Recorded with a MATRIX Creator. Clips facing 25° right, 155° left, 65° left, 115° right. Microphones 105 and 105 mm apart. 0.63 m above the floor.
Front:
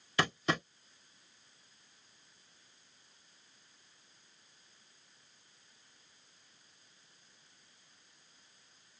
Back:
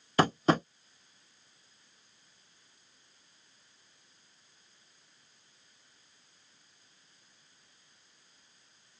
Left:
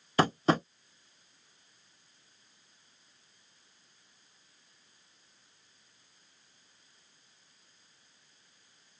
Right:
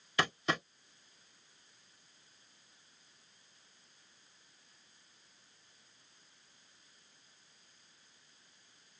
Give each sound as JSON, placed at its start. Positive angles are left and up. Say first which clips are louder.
{"t": 0.2, "sound": "tapping", "louder": "back 8 dB, left 8 dB", "azimuth_deg": 115}